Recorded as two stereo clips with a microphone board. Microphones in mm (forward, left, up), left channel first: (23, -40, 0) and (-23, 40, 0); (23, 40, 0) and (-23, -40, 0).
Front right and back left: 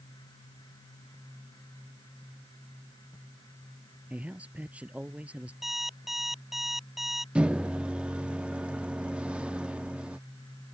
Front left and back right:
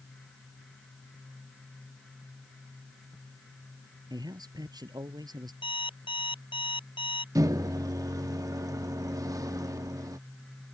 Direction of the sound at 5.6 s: 35° left.